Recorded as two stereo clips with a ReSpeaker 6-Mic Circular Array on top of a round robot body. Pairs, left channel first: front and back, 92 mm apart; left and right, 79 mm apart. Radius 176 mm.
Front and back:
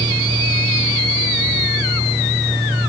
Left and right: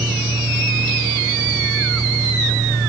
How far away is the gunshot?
I don't hear a gunshot.